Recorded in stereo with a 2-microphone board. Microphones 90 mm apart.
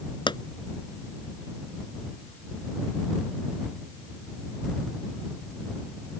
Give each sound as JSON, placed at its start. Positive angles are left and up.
{"t": 0.3, "sound": "a pop", "side_deg": 60}